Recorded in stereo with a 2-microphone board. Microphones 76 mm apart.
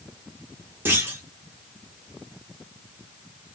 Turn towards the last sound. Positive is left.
turn(degrees=-30)  # may be behind; listen again after turning